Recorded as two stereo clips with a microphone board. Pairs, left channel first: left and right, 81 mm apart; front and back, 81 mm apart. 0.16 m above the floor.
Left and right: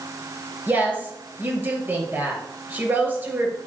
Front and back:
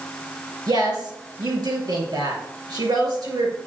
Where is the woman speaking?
150° right, 2.5 m.